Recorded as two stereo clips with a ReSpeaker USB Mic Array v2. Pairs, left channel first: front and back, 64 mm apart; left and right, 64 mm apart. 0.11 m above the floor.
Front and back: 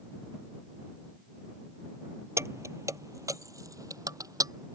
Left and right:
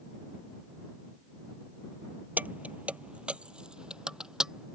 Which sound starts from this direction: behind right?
Keys jangling, at 2.4 s.